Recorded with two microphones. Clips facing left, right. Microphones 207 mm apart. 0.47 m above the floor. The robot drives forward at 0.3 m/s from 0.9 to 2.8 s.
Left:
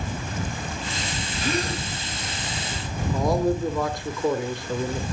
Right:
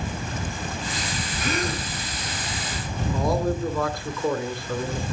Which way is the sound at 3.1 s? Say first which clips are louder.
Left 2 dB; 20° left (ahead or behind).